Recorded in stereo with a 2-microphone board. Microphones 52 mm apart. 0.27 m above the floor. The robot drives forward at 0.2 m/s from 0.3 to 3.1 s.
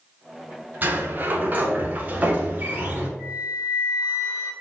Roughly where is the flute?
Centre.